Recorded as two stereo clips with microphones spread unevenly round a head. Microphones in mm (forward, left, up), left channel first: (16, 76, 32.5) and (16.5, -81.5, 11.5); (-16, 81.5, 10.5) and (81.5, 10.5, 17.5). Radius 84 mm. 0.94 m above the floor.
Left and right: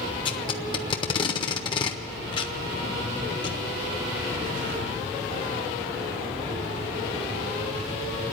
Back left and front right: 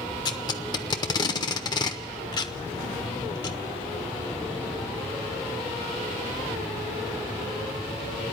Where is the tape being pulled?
110° left, 0.6 m.